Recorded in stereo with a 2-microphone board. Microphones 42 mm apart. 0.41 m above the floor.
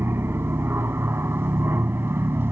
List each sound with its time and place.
0.0 s an aircraft: 65° right (ahead or behind)